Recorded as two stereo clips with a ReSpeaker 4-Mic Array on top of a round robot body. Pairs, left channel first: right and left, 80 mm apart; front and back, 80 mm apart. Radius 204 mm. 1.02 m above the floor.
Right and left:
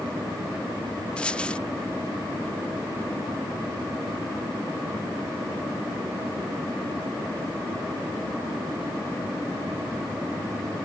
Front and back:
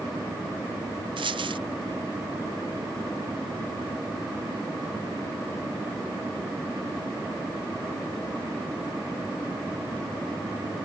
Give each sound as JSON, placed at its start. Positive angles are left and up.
{"t": 1.2, "sound": "a dropped coin", "azimuth_deg": -165}